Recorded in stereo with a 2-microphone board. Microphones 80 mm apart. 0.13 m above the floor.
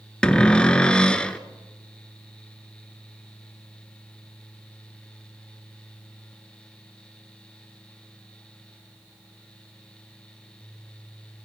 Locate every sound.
0.2 s a cupboard door: 10° left (ahead or behind), 0.8 m